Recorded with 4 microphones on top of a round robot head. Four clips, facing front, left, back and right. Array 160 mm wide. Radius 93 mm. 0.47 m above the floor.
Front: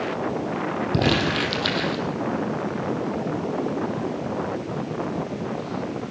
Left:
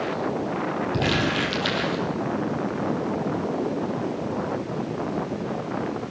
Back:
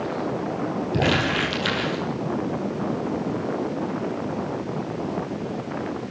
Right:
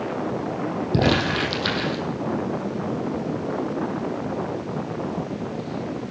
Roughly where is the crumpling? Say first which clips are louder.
Right 5 dB, even; ahead right.